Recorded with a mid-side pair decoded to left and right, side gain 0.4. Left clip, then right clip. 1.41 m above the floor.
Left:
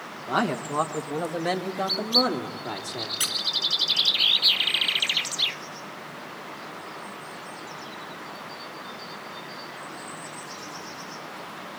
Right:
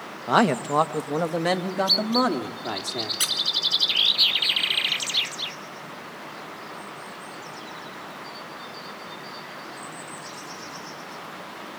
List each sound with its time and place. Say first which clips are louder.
0.3 s a man speaking: right 6 dB; 70° right, 1.6 m; by 3.1 s 45° right, 3.5 m
3.2 s a squeak: right 2 dB; 15° right, 2 m